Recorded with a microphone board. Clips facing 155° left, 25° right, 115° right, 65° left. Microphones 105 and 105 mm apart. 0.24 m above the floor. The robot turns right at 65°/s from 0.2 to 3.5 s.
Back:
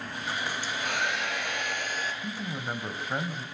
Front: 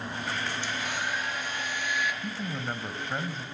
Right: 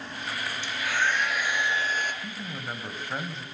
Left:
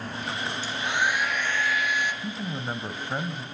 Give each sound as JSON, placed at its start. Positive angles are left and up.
{"t": 0.6, "sound": "a hair dryer", "azimuth_deg": 115, "distance_m": 2.5}
{"t": 2.2, "sound": "a man speaking", "azimuth_deg": 40, "distance_m": 1.1}